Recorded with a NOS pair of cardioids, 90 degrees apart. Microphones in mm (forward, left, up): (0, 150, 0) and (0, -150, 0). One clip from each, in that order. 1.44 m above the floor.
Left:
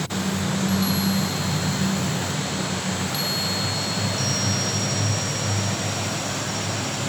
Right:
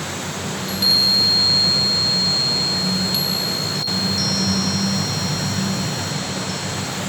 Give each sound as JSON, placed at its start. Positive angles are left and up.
{"t": 0.6, "sound": "a chime", "azimuth_deg": -55, "distance_m": 1.4}